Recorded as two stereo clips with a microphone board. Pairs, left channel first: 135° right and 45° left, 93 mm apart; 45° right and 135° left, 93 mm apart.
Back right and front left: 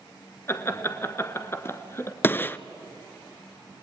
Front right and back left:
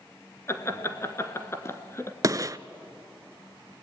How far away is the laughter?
About 1.4 m.